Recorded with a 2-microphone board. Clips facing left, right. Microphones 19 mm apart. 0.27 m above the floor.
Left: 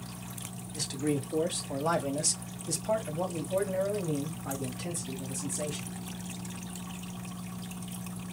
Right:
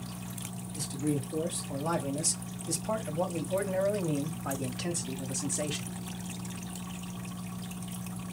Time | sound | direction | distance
0.7 | a man speaking | 45° left (ahead or behind) | 1.5 m